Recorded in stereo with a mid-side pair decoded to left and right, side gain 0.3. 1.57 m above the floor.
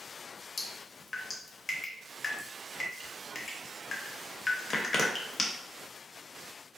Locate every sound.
0.6 s dripping: 50° left, 0.7 m